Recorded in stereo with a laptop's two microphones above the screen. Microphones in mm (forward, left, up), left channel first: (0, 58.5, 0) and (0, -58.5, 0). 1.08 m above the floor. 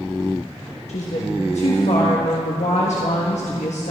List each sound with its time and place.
0.9 s a woman speaking: 80° left, 1.3 m